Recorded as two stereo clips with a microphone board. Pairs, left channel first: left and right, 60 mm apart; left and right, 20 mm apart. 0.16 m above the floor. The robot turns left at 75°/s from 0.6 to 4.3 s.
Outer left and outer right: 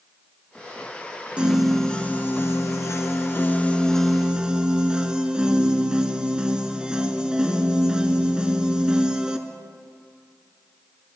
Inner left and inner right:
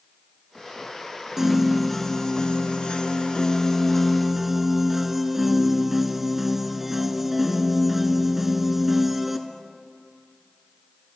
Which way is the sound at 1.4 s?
155° right.